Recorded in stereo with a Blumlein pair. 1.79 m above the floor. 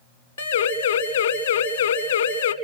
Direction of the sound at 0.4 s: 65° left.